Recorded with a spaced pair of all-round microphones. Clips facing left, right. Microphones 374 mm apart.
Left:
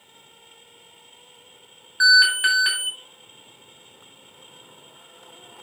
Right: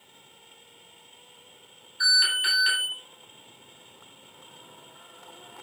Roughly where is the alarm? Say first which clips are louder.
Left 10 dB; left.